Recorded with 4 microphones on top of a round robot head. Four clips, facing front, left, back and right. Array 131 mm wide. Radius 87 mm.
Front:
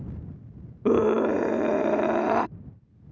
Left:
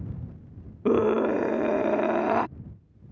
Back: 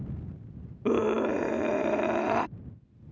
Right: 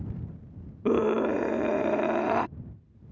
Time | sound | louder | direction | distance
0.8 | a scream | left 2 dB, front 5 dB | 30° left | ?